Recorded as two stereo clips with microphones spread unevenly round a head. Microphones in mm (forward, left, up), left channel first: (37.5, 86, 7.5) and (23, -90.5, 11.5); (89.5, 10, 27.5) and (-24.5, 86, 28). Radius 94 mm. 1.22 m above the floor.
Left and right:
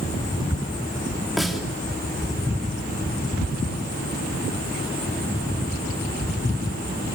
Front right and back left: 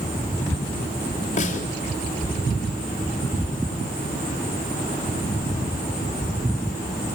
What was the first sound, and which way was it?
A snare drum, 5° right.